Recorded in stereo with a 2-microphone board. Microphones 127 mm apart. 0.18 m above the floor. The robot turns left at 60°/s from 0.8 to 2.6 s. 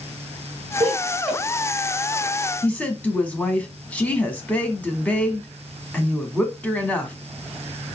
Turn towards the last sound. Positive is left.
turn(degrees=10)  # may be behind; listen again after turning